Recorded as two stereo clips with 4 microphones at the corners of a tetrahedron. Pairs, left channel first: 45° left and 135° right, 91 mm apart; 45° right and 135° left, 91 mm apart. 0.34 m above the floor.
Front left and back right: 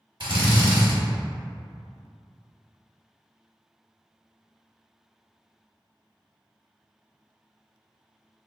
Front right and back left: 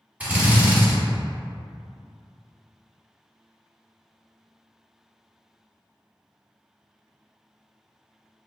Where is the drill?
150° right, 1.0 m.